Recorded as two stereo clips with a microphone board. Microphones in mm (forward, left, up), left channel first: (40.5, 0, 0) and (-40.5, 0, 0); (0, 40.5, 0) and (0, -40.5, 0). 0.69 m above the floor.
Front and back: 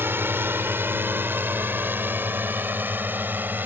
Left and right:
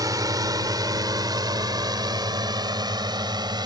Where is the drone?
120° right; by 3.6 s 115° right.